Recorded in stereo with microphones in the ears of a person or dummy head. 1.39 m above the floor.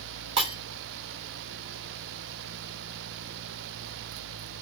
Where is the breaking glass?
25° right (ahead or behind), 1.6 m.